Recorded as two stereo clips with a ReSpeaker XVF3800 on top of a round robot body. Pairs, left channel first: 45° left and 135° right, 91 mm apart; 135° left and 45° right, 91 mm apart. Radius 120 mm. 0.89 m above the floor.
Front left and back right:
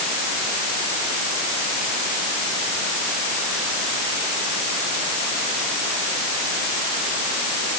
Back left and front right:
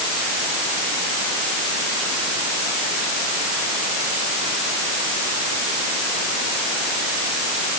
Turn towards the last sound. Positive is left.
No sound to turn to.